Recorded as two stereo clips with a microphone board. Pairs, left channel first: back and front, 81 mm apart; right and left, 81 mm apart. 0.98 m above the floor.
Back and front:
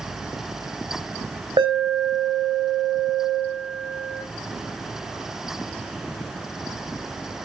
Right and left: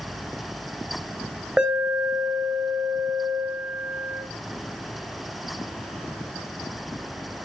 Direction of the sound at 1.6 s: 10° left.